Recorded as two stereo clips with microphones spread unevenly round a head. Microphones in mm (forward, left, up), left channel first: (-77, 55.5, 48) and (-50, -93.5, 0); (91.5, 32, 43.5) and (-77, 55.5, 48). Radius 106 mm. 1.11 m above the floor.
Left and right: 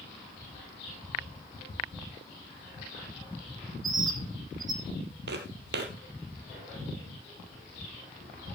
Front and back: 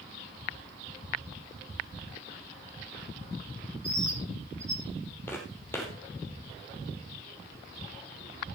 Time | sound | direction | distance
3.8 | a bird | 110° right | 3.5 m
5.3 | footsteps | 85° right | 2 m